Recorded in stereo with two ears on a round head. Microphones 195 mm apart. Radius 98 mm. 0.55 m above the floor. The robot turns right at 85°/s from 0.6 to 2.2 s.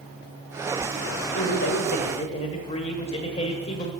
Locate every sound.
1.4 s a man speaking: 75° left, 1.7 m; by 3.9 s 150° left, 1.7 m